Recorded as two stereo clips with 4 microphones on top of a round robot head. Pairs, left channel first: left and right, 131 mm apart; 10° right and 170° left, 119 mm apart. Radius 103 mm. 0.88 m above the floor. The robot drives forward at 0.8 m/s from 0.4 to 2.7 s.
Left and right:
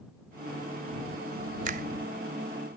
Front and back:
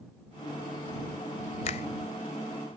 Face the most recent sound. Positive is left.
turn(degrees=-65)